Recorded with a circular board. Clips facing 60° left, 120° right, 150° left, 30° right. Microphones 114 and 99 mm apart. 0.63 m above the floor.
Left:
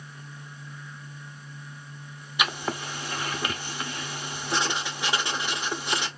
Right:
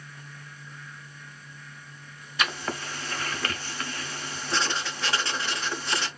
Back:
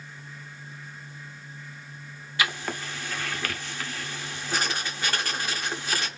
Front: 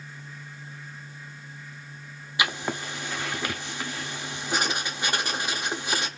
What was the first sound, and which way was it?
Writing, 10° left.